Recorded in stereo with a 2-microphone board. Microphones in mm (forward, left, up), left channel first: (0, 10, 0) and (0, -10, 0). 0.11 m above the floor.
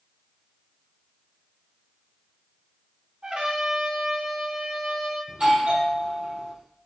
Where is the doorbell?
50° right (ahead or behind), 5.5 m.